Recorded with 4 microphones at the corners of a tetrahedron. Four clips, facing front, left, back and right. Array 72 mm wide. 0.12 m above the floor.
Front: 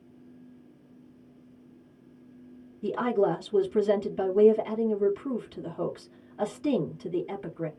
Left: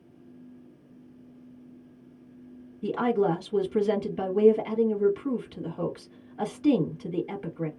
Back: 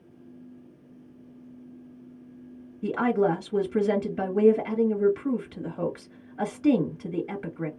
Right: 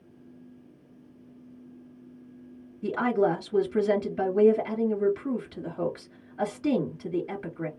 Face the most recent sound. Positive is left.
turn(degrees=-160)